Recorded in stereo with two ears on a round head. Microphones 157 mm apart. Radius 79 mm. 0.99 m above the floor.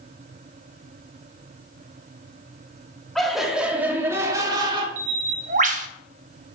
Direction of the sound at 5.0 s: 45° right (ahead or behind).